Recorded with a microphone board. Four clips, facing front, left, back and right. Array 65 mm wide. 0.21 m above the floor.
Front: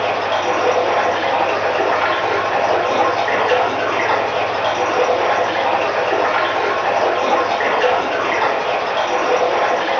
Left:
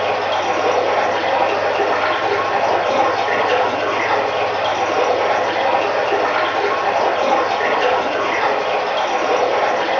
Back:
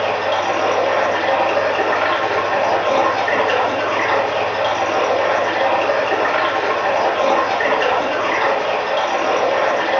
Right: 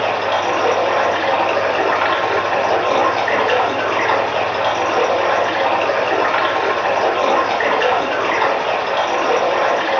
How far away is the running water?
About 1.1 m.